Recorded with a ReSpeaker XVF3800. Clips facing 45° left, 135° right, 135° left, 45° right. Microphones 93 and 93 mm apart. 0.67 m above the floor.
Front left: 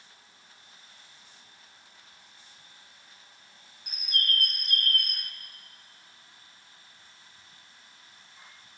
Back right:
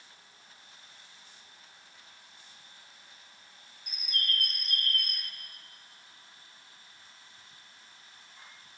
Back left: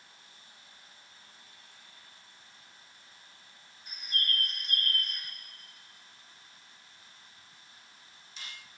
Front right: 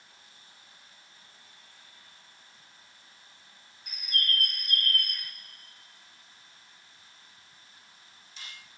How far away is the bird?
About 1.2 m.